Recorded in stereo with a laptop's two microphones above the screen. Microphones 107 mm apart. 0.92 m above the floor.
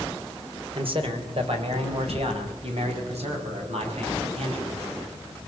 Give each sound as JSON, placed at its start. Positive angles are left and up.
{"t": 0.7, "sound": "a man speaking", "side_deg": -55, "distance_m": 3.0}